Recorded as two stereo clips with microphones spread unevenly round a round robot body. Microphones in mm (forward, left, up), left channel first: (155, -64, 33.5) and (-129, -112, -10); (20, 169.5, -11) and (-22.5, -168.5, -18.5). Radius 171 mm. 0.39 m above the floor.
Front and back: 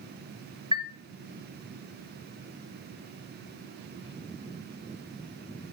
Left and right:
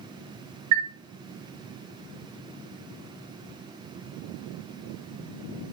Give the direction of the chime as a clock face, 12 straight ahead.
3 o'clock.